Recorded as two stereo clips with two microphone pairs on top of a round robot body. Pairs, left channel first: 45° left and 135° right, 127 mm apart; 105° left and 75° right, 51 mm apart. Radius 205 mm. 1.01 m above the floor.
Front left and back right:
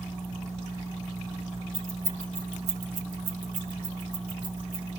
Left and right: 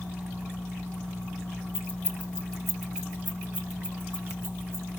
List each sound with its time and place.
1.7 s keys jangling: 155° left, 1.3 m; by 4.9 s 115° right, 3 m